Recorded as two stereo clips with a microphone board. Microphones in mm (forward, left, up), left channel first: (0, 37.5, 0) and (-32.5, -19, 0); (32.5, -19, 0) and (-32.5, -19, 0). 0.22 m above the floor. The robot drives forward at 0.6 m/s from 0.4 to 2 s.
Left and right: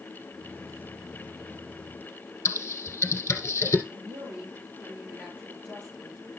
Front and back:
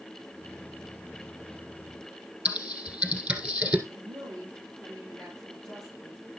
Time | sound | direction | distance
2.5 | typing on a keyboard | 115° left | 1.8 m
3.9 | a woman speaking | 175° left | 4.5 m